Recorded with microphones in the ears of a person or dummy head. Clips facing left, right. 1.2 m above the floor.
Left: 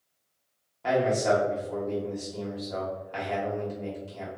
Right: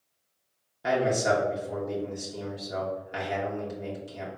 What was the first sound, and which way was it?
A man speaking, 15° right (ahead or behind).